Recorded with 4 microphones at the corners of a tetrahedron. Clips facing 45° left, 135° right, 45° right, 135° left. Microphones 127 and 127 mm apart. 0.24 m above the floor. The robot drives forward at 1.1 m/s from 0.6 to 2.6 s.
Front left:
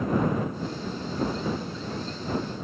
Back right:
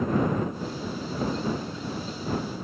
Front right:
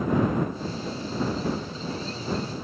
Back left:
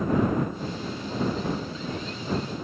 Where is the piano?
I don't hear a piano.